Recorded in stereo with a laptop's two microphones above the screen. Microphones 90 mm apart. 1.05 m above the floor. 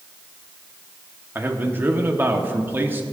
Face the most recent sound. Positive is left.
turn(degrees=-25)  # may be behind; listen again after turning